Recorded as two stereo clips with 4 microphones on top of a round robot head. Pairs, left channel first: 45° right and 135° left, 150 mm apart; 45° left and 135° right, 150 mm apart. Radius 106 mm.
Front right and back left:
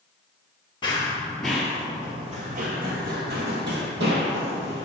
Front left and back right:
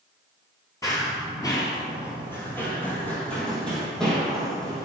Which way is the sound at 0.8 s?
10° right.